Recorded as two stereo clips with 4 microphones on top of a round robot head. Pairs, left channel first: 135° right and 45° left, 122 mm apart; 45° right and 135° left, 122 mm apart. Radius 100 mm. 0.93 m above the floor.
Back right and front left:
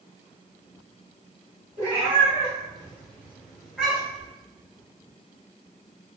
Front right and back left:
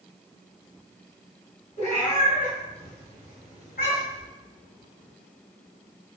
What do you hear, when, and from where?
1.8 s a cat meowing: straight ahead, 1.8 m; by 4.3 s 55° right, 2 m